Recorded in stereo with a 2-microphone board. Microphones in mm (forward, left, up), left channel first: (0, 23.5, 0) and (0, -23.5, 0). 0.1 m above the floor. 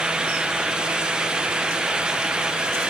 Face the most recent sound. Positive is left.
No sound to turn to.